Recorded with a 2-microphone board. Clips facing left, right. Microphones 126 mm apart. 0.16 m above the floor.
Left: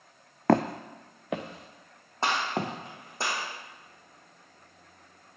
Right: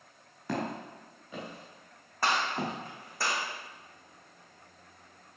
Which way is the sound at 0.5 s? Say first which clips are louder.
Left 10 dB; 80° left.